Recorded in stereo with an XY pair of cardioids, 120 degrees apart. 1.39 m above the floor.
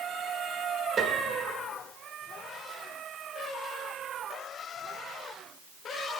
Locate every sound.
1.0 s a piano: 40° right, 2 m